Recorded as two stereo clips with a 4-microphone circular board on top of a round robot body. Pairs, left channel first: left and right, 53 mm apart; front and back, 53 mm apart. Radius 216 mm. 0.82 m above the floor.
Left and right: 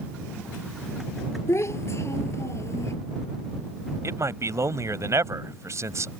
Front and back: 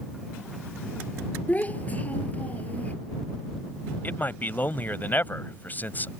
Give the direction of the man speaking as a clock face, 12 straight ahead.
2 o'clock.